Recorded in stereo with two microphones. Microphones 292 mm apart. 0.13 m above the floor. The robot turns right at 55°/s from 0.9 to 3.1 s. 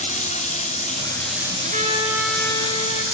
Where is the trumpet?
40° right, 2.5 m; by 3.0 s 40° left, 2.5 m.